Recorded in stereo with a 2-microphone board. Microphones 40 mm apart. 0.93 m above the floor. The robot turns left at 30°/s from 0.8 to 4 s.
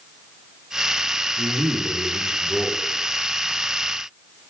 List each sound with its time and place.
1.4 s a man speaking: 115° right, 2 m; by 2.8 s 160° right, 2 m